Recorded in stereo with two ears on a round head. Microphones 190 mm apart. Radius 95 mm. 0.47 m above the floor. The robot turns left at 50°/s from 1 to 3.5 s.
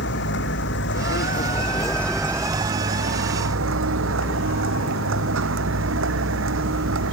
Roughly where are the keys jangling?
I don't hear keys jangling.